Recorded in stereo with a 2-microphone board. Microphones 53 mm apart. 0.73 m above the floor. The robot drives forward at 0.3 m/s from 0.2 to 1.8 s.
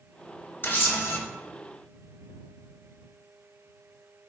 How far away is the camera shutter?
About 0.6 m.